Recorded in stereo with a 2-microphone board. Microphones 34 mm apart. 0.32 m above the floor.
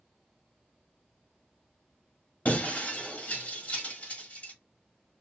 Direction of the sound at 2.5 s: 45° left (ahead or behind).